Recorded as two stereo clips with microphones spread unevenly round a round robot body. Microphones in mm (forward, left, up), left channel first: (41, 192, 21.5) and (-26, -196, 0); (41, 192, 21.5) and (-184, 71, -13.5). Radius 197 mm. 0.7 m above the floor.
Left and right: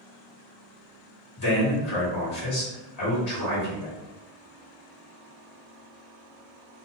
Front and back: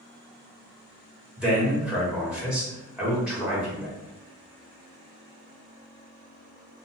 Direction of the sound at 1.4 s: 125° left.